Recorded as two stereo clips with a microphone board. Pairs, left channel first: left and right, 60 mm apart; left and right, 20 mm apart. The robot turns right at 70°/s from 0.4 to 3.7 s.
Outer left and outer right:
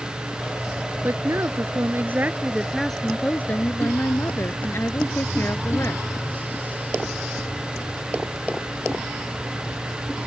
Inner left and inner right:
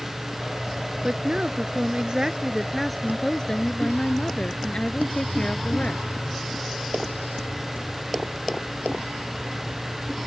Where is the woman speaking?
125° right; by 6.0 s 60° left.